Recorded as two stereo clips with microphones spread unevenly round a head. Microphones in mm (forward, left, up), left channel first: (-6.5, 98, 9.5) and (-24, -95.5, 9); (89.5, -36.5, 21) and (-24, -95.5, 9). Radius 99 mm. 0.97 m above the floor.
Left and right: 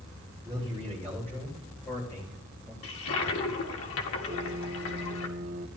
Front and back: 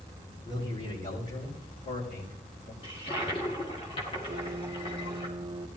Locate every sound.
0.5 s a man speaking: straight ahead, 5.5 m; by 2.7 s 10° left, 4 m
2.8 s a toilet flushing: 90° left, 1.9 m
4.3 s a piano: 115° right, 0.8 m